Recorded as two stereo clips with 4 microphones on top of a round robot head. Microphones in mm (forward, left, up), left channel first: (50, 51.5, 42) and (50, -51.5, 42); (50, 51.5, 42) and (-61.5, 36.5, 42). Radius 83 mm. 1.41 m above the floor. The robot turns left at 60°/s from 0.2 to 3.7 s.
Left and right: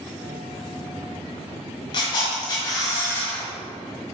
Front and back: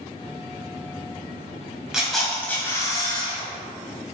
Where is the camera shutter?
105° left, 1.4 m; by 3.5 s 15° left, 1.4 m.